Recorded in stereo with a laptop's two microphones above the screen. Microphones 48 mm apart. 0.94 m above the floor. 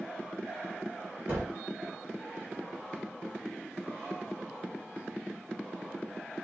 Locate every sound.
1.3 s a gunshot: 45° right (ahead or behind), 2 m